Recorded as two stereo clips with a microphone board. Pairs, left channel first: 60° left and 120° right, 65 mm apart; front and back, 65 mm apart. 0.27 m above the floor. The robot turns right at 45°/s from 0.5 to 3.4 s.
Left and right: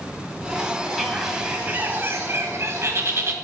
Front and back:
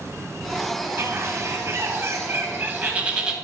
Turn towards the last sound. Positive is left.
turn(degrees=-100)